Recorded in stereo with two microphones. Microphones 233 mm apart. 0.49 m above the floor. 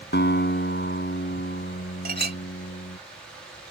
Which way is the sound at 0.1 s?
50° left (ahead or behind).